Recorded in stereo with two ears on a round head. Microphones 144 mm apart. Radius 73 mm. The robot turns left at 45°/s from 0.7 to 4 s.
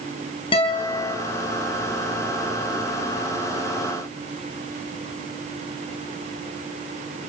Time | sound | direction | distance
0.5 | a guitar | 35° left (ahead or behind) | 5.5 m